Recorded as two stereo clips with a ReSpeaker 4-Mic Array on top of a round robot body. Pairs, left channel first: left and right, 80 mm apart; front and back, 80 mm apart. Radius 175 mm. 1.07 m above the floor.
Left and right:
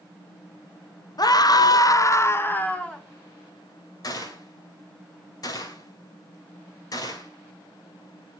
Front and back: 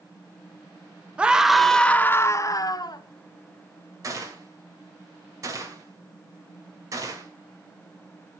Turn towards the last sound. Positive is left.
turn(degrees=130)